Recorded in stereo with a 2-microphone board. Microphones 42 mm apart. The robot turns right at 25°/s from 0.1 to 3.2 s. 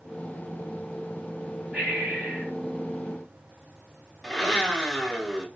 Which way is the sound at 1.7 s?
25° right (ahead or behind).